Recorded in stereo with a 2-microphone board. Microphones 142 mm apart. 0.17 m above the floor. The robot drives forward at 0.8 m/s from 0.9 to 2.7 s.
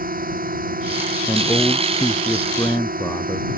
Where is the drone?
80° right.